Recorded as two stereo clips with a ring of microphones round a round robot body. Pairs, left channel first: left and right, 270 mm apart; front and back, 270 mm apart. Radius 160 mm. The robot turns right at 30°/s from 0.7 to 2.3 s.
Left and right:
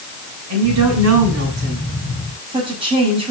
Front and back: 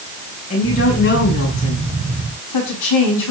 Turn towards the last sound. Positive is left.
turn(degrees=-20)